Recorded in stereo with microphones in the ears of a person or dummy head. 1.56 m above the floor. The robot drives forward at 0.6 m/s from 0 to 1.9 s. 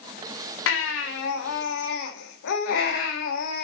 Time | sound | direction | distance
0.7 | a baby crying | 80° left | 2.5 m